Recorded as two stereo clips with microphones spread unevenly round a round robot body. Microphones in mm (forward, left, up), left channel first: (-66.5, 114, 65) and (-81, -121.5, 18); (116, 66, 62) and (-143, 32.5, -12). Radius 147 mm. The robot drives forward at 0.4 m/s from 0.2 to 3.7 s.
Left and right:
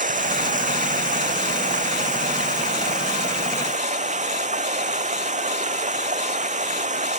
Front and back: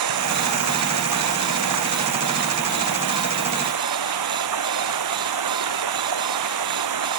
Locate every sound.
0.0 s running water: 150° right; by 7.2 s 155° right